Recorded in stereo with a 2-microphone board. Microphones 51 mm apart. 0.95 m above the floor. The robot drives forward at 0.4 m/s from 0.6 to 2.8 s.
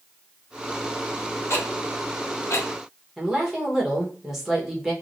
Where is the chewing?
No chewing in this recording.